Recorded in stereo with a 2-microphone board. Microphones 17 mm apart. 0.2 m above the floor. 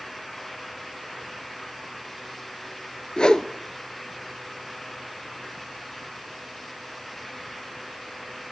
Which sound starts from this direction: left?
A whoosh, at 3.2 s.